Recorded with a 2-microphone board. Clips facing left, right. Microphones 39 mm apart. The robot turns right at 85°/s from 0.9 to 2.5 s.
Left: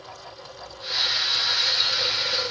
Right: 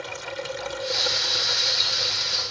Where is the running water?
85° right; by 2.5 s 50° left.